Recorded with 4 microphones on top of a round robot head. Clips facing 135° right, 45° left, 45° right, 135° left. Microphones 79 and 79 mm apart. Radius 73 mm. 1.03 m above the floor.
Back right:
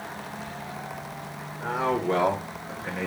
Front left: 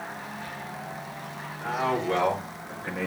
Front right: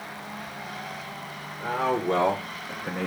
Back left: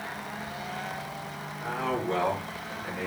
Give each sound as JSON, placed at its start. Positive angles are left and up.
{"t": 1.6, "sound": "a man speaking", "azimuth_deg": -85, "distance_m": 1.9}